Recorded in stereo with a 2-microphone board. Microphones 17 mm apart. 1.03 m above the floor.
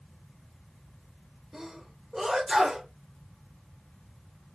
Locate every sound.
1.5 s a sneeze: 40° right (ahead or behind), 3 m